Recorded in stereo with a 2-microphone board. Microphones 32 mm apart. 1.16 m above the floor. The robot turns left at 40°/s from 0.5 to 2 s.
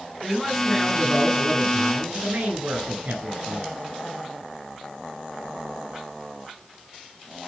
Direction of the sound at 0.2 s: Straight ahead.